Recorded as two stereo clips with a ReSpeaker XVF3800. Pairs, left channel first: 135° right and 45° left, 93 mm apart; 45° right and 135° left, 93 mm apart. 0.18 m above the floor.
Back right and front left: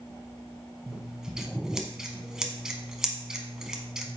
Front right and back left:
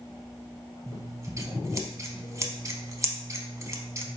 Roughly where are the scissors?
Behind left.